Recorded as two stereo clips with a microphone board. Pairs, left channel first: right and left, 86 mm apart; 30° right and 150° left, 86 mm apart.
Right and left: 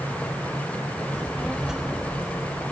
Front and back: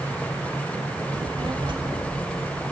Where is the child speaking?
175° right, 0.9 m; by 2.6 s 165° left, 2.5 m.